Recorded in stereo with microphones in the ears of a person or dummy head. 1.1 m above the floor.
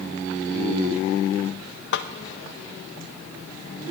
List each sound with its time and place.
1.9 s a snare drum: 50° left (ahead or behind), 0.7 m